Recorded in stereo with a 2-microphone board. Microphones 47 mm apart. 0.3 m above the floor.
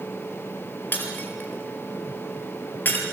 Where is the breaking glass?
40° left (ahead or behind), 3.5 m.